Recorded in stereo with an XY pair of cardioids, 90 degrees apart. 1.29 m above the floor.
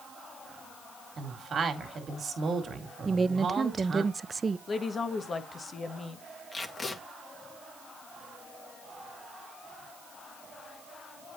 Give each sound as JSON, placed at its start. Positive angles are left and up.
{"t": 1.2, "sound": "a woman speaking", "azimuth_deg": -50, "distance_m": 2.5}
{"t": 3.0, "sound": "a woman speaking", "azimuth_deg": -35, "distance_m": 0.5}
{"t": 4.7, "sound": "a woman speaking", "azimuth_deg": 45, "distance_m": 1.4}
{"t": 6.5, "sound": "tape being pulled", "azimuth_deg": 35, "distance_m": 1.9}